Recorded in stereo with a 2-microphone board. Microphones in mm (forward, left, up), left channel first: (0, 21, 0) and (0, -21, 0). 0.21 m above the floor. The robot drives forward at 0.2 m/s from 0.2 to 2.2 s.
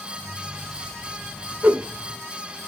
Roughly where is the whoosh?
Right.